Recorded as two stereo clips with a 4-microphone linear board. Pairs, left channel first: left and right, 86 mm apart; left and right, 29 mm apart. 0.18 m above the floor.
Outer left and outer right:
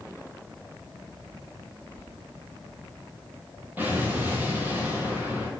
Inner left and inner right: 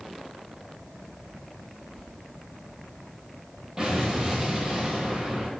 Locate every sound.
1.9 s a sliding door: 10° left (ahead or behind), 1.0 m
3.8 s an explosion: 20° right (ahead or behind), 0.9 m